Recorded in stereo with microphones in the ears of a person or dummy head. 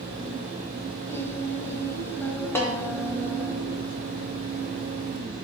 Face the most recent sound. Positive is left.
turn(degrees=15)  # may be behind; listen again after turning